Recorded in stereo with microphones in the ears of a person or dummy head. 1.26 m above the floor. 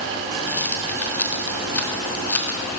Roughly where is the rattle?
Centre.